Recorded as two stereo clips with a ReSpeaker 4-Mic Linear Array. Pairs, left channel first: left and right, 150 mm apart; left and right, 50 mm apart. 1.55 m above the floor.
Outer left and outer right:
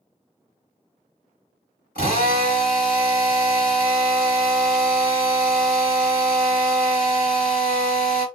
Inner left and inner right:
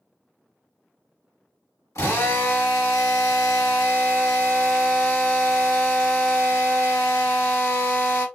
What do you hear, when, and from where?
1.9 s a drill: 85° left, 2.0 m